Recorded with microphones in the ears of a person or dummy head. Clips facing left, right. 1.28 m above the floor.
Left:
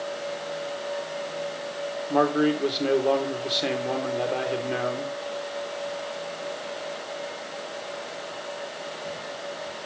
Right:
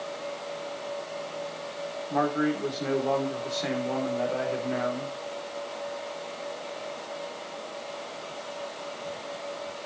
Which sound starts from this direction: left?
A man speaking, at 2.1 s.